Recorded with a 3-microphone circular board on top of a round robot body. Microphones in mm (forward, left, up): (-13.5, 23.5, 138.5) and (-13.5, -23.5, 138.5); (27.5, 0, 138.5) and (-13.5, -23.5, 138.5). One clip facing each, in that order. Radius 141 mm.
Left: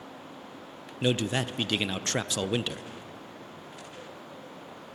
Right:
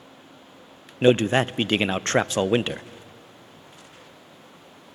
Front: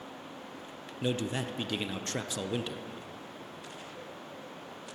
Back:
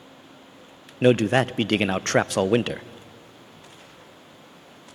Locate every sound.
1.0 s a man speaking: 135° right, 0.6 m